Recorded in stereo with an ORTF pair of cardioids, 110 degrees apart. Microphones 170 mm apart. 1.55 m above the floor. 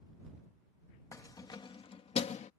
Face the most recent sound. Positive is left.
turn(degrees=45)